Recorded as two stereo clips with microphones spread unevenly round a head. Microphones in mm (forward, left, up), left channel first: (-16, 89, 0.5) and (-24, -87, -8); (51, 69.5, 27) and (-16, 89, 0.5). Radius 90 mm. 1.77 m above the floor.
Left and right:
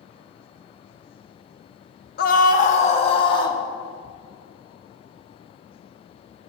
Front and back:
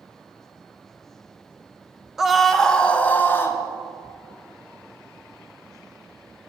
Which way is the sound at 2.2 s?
65° left.